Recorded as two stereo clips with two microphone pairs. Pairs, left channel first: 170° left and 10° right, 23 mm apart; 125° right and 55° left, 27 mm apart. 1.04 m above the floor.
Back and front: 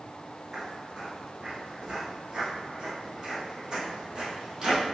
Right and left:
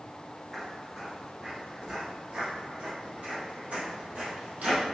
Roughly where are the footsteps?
Ahead right.